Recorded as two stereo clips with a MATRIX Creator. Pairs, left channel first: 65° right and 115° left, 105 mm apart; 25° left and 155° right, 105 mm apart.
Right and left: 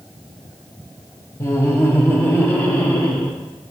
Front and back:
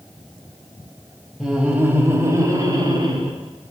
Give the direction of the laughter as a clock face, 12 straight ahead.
2 o'clock.